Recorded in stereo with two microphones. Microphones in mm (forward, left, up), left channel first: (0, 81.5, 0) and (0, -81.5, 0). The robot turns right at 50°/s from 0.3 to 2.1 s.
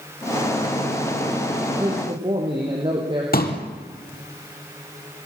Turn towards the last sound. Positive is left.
turn(degrees=60)  # may be behind; listen again after turning